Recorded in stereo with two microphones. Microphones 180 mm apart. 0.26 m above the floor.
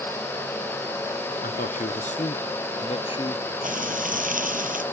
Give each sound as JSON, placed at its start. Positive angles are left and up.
{"t": 1.4, "sound": "a man speaking", "side_deg": 55}
{"t": 3.6, "sound": "frying", "side_deg": -50}